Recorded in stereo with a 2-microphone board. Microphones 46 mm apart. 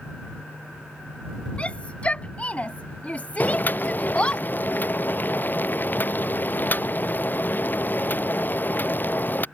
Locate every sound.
1.6 s a shout: 30° left (ahead or behind); by 4.4 s 25° left (ahead or behind)
3.4 s boiling: 40° left (ahead or behind)